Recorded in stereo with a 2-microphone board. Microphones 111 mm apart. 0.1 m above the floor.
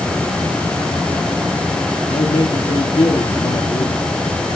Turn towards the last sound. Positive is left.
turn(degrees=45)  # may be behind; listen again after turning